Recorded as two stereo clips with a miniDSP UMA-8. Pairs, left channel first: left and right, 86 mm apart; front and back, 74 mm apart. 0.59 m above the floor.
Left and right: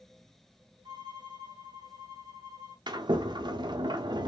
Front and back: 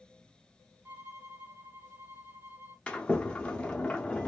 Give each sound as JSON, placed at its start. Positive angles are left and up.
{"t": 0.8, "sound": "a violin", "azimuth_deg": -115, "distance_m": 1.2}
{"t": 2.9, "sound": "a sliding door", "azimuth_deg": -75, "distance_m": 0.8}